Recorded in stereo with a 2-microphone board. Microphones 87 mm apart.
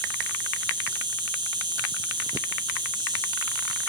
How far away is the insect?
About 1.6 m.